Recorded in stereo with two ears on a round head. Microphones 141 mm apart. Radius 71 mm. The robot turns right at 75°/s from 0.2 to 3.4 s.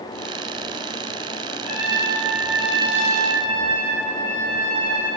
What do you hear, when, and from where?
1.6 s a trumpet: 100° left, 2.0 m; by 5.1 s 125° right, 2.0 m